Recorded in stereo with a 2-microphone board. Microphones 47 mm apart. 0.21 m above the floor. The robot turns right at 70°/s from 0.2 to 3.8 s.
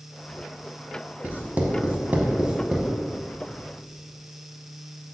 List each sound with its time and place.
1.2 s writing: 35° right (ahead or behind), 0.5 m; by 2.9 s 5° right (ahead or behind), 0.5 m